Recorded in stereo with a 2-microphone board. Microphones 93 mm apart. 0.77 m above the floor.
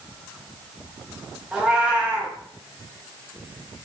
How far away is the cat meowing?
About 0.5 m.